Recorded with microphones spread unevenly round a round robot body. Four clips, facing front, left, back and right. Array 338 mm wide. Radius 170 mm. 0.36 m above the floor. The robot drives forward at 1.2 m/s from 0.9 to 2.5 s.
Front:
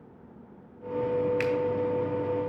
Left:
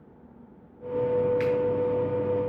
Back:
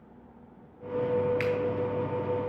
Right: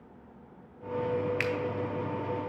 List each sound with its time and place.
1.4 s a finger snap: 55° right, 2.0 m; by 1.5 s 60° right, 1.9 m